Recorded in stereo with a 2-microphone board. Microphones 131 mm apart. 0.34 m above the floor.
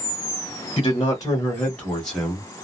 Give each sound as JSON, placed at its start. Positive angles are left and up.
{"t": 0.8, "sound": "a man speaking", "side_deg": 35, "distance_m": 1.0}